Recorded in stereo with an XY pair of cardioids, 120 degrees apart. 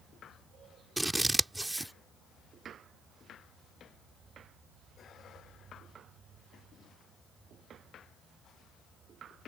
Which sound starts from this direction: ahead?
Scissors, at 1.0 s.